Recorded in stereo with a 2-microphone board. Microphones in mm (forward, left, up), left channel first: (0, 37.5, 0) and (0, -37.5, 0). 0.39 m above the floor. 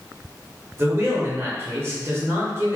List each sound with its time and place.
0.8 s a man speaking: 35° right (ahead or behind), 1.0 m